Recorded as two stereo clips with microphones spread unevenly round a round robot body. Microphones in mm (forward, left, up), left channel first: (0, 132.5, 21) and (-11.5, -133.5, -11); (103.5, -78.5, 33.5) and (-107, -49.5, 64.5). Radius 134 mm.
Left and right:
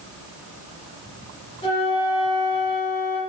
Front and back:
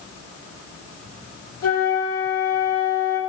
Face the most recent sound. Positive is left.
turn(degrees=20)